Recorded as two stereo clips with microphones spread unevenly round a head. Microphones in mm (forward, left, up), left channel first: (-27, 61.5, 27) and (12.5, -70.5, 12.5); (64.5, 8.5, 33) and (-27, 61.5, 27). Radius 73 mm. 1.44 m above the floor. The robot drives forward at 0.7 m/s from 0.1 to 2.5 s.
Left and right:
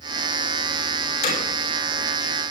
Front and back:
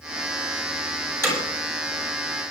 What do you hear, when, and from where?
1.2 s hammering: 85° left, 9 m